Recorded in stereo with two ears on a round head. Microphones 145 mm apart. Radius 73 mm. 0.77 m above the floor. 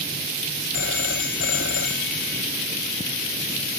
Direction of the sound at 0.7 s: 85° left.